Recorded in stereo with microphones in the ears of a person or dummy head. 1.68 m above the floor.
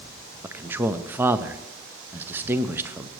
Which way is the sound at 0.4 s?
10° right (ahead or behind).